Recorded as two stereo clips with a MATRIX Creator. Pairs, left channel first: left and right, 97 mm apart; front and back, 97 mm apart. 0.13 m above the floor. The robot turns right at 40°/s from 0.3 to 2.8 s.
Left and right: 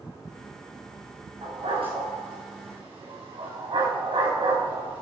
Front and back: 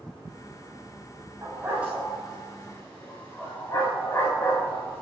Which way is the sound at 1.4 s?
120° right.